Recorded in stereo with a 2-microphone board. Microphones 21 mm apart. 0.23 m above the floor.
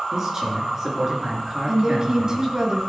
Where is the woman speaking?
35° right (ahead or behind), 1.8 m.